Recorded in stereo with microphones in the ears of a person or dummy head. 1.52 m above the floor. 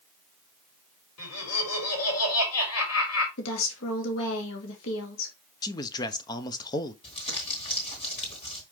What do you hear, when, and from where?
1.2 s laughter: 85° left, 4.5 m
3.4 s a woman speaking: 75° left (ahead or behind), 2 m
5.6 s a man speaking: 20° left (ahead or behind), 0.8 m
7.0 s crumpling: 30° left (ahead or behind), 3.5 m